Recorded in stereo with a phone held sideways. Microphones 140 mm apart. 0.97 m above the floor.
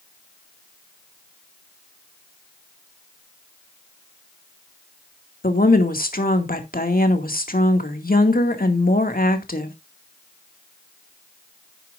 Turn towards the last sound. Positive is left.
turn(degrees=80)